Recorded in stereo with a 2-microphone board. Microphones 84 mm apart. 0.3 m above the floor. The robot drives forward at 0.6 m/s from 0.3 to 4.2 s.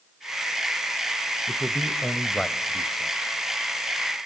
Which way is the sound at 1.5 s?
5° left (ahead or behind).